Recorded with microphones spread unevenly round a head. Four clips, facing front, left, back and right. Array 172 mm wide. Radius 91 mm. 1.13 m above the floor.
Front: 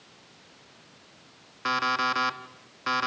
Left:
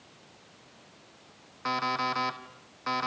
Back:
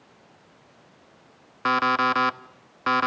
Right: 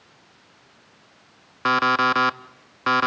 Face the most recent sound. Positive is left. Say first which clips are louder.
# right 10 dB, back 5 dB
turn(degrees=-95)